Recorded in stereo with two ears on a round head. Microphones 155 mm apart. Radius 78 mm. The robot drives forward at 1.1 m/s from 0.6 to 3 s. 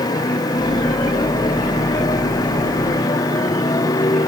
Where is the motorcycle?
25° left (ahead or behind).